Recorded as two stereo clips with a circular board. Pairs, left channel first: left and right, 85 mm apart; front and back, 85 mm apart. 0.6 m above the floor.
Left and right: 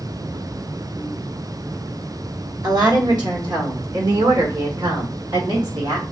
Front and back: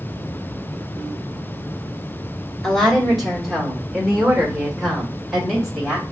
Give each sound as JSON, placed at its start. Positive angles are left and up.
{"t": 2.6, "sound": "a woman speaking", "azimuth_deg": -85, "distance_m": 1.4}